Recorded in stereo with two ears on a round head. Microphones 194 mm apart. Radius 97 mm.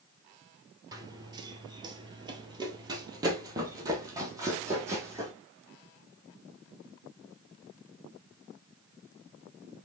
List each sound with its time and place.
0.9 s running footsteps: 20° right (ahead or behind), 1.1 m; by 5.3 s 15° right (ahead or behind), 2 m